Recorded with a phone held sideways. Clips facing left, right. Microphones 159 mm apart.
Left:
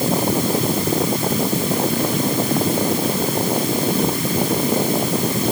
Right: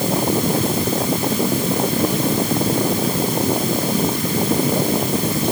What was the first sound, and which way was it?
Only background noise.